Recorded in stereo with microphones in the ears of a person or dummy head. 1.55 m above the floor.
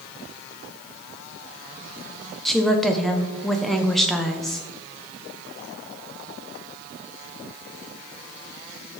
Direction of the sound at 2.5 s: 5° left (ahead or behind).